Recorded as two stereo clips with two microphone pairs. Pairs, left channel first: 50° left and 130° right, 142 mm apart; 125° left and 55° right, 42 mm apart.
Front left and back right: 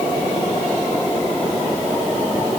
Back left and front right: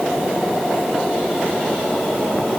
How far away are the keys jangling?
I don't hear keys jangling.